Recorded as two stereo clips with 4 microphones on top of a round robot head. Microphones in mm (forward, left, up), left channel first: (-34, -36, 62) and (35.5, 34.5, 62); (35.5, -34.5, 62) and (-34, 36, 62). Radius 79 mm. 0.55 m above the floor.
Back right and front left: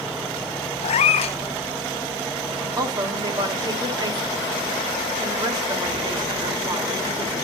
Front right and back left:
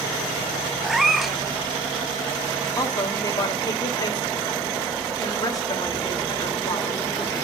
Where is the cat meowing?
135° right, 0.6 m.